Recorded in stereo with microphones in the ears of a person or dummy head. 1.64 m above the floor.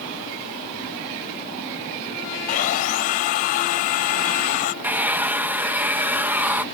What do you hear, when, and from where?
2.5 s sawing: 45° left (ahead or behind)
4.8 s a hair dryer: 10° right (ahead or behind)